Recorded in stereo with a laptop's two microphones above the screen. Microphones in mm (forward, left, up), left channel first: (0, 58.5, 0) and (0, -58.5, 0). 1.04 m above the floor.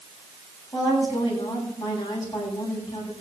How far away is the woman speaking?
About 8.5 m.